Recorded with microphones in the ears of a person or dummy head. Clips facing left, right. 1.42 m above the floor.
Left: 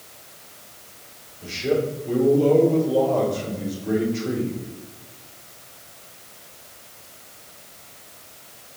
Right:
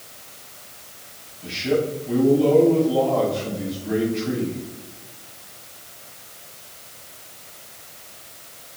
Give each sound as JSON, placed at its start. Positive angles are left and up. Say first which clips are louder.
{"t": 1.4, "sound": "a man speaking", "louder": "even", "side_deg": 50, "distance_m": 5.5}